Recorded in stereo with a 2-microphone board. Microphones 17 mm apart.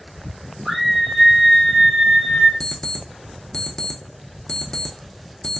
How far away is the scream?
About 1.5 m.